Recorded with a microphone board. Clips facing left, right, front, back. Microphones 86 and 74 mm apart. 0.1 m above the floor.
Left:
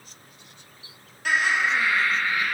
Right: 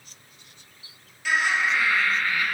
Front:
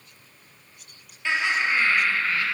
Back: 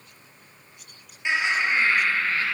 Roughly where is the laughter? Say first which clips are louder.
Left 1 dB, even; left.